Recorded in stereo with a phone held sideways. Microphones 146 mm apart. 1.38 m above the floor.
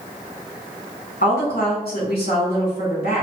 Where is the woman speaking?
80° left, 2.0 m.